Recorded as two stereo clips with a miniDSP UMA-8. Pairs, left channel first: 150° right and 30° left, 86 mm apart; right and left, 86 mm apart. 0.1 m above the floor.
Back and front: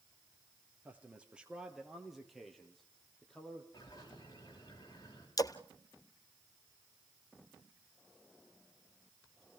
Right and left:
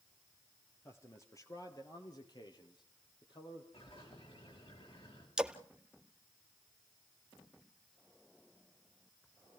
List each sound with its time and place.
0.8 s a man speaking: 35° right, 2.5 m; by 3.6 s 70° right, 4.5 m
3.7 s a bird: 105° right, 9 m
5.4 s a splash: 170° left, 0.9 m